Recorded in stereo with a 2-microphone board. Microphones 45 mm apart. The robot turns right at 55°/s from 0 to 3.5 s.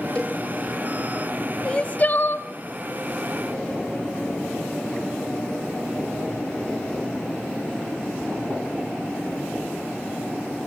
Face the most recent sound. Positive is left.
turn(degrees=120)